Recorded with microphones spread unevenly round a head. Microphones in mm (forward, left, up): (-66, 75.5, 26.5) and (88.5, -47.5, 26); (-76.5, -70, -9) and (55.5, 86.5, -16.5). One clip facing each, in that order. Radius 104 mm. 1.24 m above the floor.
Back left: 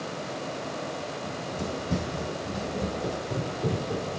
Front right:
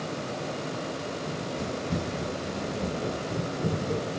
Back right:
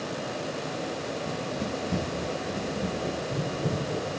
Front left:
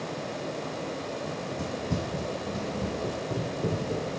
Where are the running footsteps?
60° left, 4.5 m; by 4.2 s 20° left, 1.3 m.